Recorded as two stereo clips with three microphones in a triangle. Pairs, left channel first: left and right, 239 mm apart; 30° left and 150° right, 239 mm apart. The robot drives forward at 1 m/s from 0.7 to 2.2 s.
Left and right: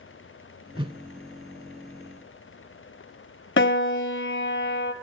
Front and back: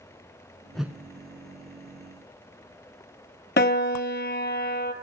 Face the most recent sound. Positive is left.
turn(degrees=65)